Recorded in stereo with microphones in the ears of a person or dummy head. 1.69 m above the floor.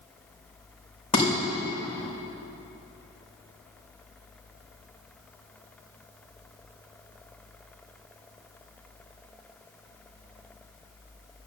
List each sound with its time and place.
1.1 s dishes clattering: 30° left (ahead or behind), 4.5 m